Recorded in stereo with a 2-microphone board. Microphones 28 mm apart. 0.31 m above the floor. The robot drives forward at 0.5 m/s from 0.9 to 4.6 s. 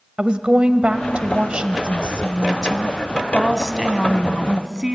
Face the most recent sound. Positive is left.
turn(degrees=-20)  # may be behind; listen again after turning